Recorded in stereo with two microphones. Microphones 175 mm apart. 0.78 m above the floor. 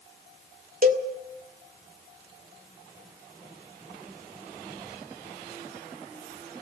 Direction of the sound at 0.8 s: 55° right (ahead or behind).